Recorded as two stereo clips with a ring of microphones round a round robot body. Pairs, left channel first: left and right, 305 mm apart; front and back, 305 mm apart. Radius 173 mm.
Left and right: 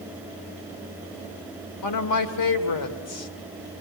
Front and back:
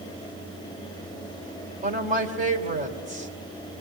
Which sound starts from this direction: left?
A woman speaking, at 1.8 s.